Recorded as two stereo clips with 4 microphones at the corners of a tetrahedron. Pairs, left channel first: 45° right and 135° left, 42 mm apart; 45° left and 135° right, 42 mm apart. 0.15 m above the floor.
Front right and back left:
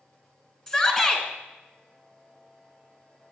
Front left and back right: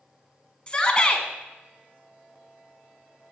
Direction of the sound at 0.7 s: 10° left.